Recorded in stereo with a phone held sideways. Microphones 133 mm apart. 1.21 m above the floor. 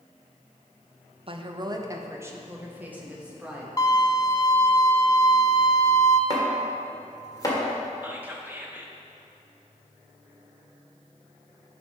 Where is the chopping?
30° left (ahead or behind), 1.7 m.